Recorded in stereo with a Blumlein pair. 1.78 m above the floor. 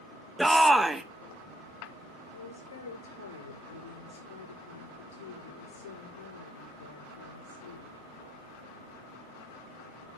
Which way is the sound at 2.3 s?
65° left.